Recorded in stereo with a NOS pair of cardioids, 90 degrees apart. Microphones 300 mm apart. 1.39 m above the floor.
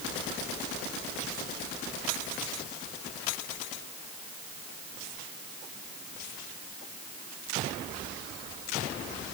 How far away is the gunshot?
No gunshot in this recording.